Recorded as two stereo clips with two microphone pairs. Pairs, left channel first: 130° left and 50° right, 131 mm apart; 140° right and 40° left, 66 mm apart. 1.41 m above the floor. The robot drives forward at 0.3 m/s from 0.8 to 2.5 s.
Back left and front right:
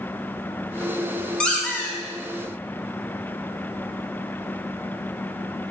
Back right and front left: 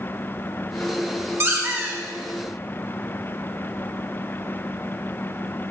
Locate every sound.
1.4 s a squeak: 55° left, 0.6 m; by 2.0 s 80° left, 0.6 m